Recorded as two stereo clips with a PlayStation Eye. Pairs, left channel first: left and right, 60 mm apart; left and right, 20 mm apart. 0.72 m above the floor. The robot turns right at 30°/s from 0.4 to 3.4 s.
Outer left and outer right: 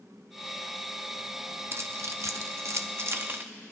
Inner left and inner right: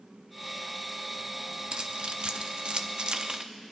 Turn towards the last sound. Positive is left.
turn(degrees=-45)  # may be behind; listen again after turning